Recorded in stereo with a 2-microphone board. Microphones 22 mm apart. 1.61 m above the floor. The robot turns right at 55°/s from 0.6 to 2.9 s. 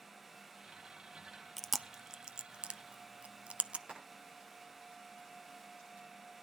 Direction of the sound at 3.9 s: 80° right.